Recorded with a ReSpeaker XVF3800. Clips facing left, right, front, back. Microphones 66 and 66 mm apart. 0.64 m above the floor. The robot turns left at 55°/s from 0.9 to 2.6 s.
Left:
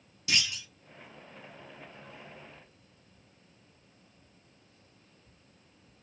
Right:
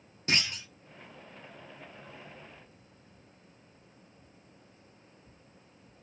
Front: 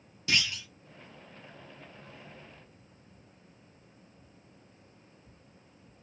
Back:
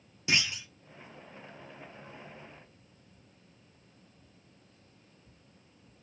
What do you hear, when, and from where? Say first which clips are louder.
0.3 s a clunk: right 1 dB, even; 120° right, 0.9 m